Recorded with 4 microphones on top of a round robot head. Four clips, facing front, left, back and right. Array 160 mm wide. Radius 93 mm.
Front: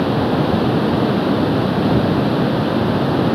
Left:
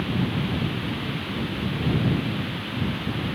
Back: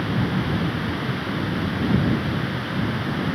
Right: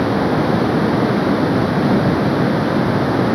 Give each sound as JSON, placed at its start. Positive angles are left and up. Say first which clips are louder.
{"t": 0.0, "sound": "running water", "louder": "right 11 dB, front 8 dB", "azimuth_deg": -50}